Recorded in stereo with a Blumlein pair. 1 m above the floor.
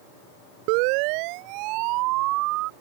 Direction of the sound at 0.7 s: 45° right.